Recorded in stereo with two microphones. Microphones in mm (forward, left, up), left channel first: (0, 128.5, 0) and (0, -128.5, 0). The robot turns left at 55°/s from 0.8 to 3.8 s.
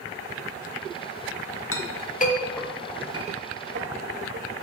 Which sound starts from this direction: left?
A clink, at 1.7 s.